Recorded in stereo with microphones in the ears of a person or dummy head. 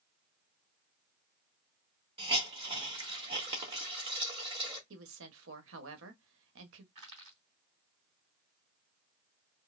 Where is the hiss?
30° right (ahead or behind), 1.5 m.